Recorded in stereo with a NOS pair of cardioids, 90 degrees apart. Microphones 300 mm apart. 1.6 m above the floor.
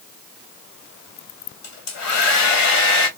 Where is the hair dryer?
60° left, 1.5 m.